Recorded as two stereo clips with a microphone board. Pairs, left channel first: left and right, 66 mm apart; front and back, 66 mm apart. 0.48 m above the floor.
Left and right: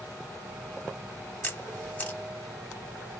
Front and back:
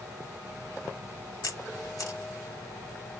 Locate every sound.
1.4 s a camera shutter: 25° left, 0.8 m